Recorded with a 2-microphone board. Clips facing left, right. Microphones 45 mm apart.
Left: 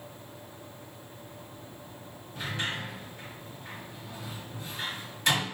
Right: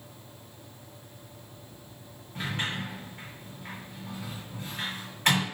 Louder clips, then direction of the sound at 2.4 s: Right 1 dB; 40° right (ahead or behind).